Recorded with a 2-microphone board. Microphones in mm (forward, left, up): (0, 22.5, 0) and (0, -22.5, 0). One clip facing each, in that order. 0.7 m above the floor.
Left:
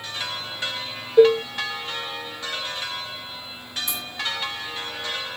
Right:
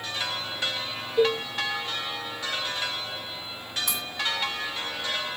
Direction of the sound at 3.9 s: 80° right.